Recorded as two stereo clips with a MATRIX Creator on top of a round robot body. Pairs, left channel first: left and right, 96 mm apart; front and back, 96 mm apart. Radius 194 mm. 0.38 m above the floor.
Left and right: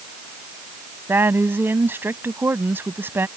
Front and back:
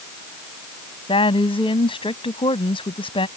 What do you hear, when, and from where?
1.1 s a woman speaking: 25° right